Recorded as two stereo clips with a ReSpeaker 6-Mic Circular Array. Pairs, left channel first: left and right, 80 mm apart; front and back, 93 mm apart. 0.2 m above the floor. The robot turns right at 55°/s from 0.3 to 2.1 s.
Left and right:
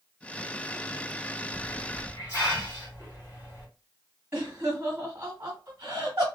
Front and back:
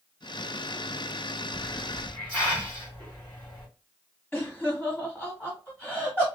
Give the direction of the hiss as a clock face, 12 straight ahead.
11 o'clock.